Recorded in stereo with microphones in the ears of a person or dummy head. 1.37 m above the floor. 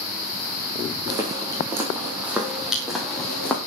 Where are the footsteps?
25° right (ahead or behind), 2.5 m; by 3.6 s 5° left (ahead or behind), 2.5 m.